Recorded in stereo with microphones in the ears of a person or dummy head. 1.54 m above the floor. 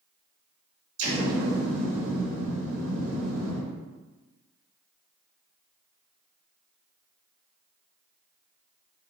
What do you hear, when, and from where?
1.0 s an explosion: 75° right (ahead or behind), 1.5 m